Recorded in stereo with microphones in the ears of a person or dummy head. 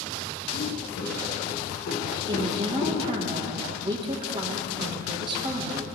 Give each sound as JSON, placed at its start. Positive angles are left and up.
{"t": 0.5, "sound": "footsteps", "side_deg": 65, "distance_m": 4.0}
{"t": 2.3, "sound": "a woman speaking", "side_deg": -30, "distance_m": 1.5}